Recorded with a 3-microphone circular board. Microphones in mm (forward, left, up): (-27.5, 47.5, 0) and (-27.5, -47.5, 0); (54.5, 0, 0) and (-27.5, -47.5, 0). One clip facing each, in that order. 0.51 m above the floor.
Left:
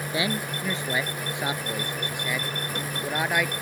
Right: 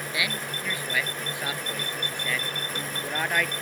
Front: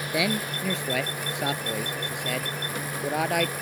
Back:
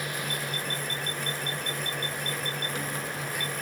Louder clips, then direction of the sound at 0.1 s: Left 5 dB, front 7 dB; 30° left.